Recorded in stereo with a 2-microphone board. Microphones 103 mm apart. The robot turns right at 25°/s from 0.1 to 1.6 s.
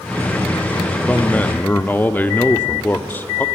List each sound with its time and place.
1.1 s a man speaking: 10° left (ahead or behind), 0.7 m; by 3.5 s 15° left (ahead or behind), 0.7 m